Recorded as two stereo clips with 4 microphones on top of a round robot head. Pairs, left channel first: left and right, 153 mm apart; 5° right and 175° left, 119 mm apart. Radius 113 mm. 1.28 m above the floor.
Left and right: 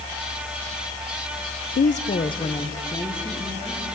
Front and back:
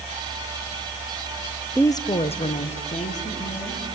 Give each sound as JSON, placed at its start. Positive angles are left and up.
{"t": 1.8, "sound": "a woman speaking", "azimuth_deg": 75, "distance_m": 0.7}